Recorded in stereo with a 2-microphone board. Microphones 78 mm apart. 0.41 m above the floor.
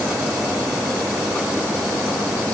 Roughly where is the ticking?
I don't hear ticking.